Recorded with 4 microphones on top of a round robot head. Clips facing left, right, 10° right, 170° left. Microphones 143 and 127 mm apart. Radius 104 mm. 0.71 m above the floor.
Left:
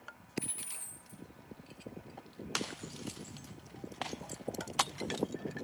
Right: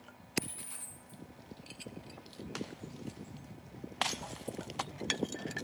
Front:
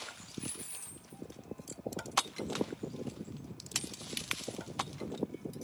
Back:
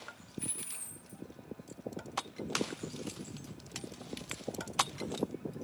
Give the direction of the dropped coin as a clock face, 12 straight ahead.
7 o'clock.